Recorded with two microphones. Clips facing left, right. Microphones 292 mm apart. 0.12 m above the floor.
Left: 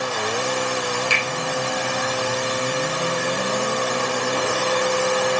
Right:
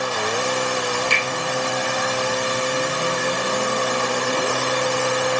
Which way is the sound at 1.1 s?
5° left (ahead or behind).